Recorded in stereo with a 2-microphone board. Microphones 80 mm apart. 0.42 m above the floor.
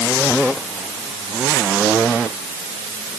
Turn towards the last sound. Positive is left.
No sound to turn to.